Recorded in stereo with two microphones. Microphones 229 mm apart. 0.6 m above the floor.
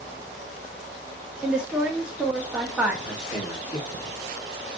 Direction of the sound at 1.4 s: 5° right (ahead or behind).